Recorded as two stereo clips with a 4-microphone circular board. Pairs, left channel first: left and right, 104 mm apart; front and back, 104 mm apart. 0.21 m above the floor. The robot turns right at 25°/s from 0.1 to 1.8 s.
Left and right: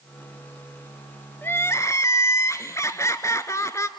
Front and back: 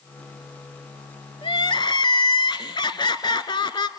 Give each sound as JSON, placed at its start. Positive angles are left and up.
{"t": 1.4, "sound": "crying", "azimuth_deg": 25, "distance_m": 0.8}